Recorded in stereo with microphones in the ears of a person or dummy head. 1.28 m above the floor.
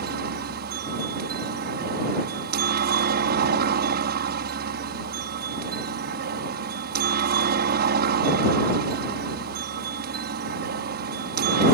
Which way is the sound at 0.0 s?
45° right (ahead or behind).